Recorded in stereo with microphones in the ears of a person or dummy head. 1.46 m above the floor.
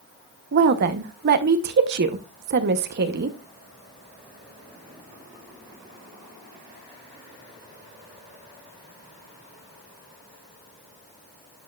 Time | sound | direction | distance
0.5 | a woman speaking | 55° right (ahead or behind) | 0.9 m